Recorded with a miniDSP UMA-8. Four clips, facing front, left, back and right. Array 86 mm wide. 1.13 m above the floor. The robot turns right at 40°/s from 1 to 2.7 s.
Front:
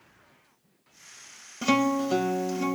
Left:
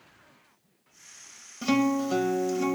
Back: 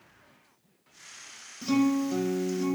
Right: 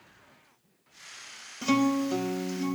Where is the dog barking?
No dog barking in this recording.